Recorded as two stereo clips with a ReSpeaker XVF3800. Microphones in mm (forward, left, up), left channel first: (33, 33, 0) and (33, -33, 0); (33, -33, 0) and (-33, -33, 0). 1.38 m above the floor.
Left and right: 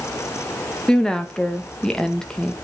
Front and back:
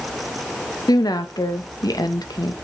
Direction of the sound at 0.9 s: 10° left.